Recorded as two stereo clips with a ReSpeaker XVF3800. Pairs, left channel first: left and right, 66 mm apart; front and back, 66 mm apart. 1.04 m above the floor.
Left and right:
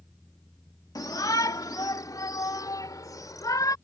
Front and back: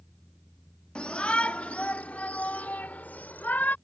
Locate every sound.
0.9 s a shout: 75° left; by 3.8 s 65° left